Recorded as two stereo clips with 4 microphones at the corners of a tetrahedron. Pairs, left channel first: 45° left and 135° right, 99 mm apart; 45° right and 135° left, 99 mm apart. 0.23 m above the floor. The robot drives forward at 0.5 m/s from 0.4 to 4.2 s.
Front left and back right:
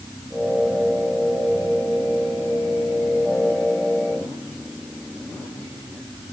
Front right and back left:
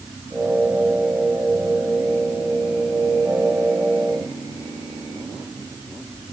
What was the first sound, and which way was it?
Only background noise.